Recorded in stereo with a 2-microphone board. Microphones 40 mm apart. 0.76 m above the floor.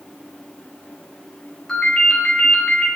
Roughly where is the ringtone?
Centre.